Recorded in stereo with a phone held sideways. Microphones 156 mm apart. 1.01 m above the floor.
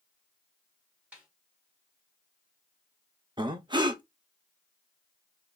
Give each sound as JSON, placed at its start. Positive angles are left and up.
{"t": 1.1, "sound": "a snare drum", "side_deg": -10, "distance_m": 1.6}
{"t": 3.4, "sound": "breathing", "side_deg": -30, "distance_m": 0.6}